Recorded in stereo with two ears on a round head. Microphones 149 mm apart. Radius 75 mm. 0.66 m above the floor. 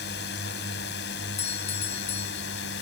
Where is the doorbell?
40° left (ahead or behind).